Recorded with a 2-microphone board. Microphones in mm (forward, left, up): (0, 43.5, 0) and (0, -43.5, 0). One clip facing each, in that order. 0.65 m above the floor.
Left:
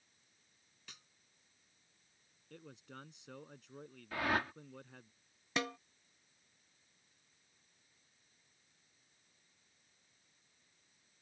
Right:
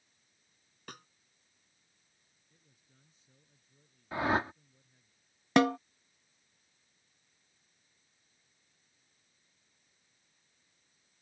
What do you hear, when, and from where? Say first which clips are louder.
0.9 s a snare drum: right 12 dB; 50° right (ahead or behind)
2.5 s a man speaking: left 19 dB; 75° left (ahead or behind)
4.1 s a whoosh: right 5 dB; 25° right (ahead or behind)
5.6 s a snare drum: right 14 dB; 60° right (ahead or behind)